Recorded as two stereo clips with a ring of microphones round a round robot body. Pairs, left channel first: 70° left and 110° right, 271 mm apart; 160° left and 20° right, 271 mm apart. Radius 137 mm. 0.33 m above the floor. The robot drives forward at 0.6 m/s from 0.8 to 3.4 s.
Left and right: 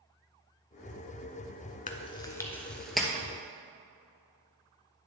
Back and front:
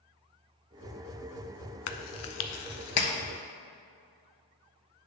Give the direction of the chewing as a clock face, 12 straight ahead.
8 o'clock.